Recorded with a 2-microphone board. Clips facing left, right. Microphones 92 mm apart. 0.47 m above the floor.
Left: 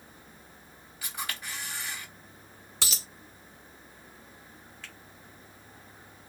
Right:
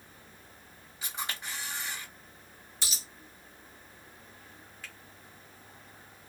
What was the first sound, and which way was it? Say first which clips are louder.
A camera shutter: even; 25° right (ahead or behind).